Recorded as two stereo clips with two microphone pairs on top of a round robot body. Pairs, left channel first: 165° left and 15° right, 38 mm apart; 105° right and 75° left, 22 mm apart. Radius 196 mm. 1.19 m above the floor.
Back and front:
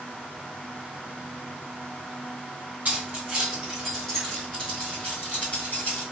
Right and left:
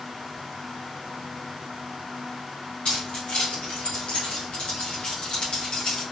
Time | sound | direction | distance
2.9 | keys jangling | 70° right | 0.9 m